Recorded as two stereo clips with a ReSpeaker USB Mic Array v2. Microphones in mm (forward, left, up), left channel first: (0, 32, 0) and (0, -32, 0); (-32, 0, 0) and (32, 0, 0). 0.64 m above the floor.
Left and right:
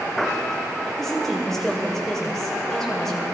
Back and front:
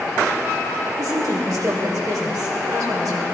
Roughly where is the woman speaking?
Ahead.